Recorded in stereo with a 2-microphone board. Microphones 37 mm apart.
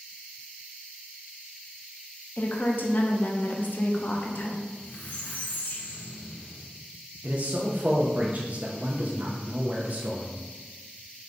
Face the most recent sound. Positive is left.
turn(degrees=-45)  # may be behind; listen again after turning